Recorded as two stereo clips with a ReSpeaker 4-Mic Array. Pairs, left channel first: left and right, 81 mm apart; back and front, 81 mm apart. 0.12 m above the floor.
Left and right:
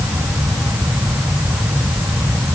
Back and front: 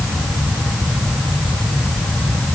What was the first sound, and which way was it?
Only background noise.